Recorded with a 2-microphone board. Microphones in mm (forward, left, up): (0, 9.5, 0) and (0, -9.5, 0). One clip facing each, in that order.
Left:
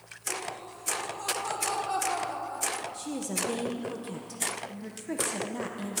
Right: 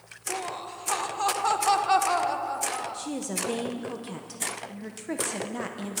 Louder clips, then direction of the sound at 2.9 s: Right 1 dB; 15° right (ahead or behind).